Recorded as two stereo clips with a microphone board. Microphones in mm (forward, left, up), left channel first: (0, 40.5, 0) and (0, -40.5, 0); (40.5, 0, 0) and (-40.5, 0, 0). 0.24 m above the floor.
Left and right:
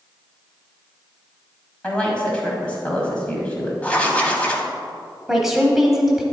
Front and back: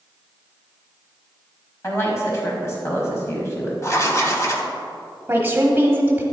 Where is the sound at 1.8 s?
25° left, 1.2 m.